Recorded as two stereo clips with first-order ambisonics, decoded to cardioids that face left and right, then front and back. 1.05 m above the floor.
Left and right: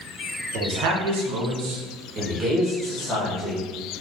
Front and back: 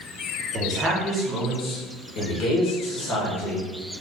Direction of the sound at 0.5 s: 115° right.